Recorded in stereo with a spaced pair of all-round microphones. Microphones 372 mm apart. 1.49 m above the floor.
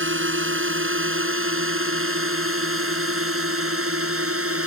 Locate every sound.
0.0 s a drone: 30° right (ahead or behind); by 4.7 s 35° right (ahead or behind)